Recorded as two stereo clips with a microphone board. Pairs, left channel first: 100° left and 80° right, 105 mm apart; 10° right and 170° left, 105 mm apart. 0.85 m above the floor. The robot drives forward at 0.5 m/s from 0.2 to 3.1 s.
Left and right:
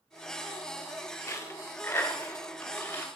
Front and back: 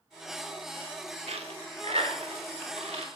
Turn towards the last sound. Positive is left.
turn(degrees=170)